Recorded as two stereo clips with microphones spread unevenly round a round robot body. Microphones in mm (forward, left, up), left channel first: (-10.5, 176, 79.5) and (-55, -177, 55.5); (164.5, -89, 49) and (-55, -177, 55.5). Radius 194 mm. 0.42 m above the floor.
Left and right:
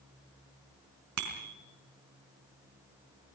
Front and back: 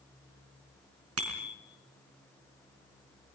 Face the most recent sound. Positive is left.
turn(degrees=-140)